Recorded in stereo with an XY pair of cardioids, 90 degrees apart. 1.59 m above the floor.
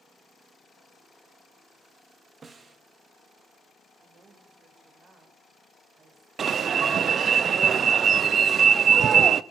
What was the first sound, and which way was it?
A snare drum, 45° right.